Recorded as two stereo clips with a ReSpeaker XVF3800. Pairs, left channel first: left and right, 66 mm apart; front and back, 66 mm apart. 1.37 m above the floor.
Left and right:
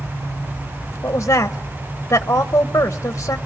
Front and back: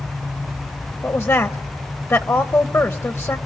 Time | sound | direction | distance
1.0 | a woman speaking | 45° left | 1.1 m